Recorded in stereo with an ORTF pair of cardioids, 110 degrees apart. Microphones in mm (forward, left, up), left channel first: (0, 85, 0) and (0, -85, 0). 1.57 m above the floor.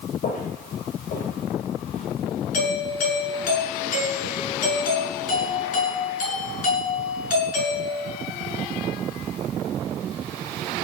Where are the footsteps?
65° left, 8 m.